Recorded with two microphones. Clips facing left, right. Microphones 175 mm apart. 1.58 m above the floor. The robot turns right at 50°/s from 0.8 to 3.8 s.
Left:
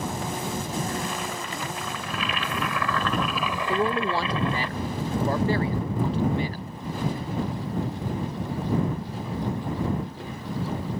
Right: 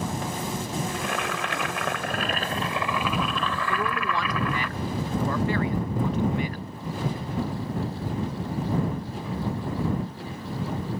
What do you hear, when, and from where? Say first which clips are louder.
0.9 s boiling: right 1 dB; 115° right; by 4.7 s 25° left
3.7 s a man speaking: left 7 dB; 35° left (ahead or behind); by 6.7 s 30° left (ahead or behind)